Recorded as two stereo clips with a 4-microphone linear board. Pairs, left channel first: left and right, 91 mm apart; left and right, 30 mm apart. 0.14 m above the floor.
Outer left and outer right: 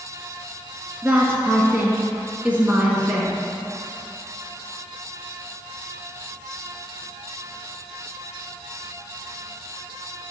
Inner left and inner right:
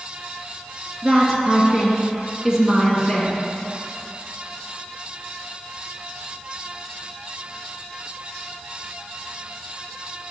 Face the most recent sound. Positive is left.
turn(degrees=-15)  # may be behind; listen again after turning